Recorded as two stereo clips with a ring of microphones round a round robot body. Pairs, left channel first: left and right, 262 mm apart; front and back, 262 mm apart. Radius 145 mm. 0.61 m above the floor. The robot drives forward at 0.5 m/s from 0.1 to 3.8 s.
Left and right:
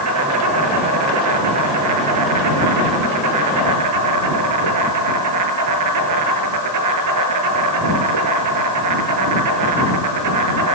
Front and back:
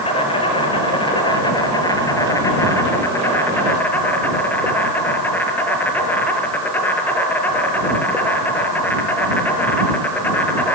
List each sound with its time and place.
0.0 s an insect: 70° right, 7.5 m; by 10.7 s 85° right, 7 m